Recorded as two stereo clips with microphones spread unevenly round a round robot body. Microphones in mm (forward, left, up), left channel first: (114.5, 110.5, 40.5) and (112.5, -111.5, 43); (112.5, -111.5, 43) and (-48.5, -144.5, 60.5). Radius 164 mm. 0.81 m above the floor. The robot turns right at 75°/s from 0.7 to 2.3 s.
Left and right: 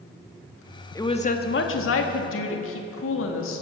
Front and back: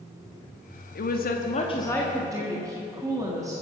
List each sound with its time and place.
0.9 s a woman speaking: 15° left, 1.5 m; by 3.6 s 115° left, 1.5 m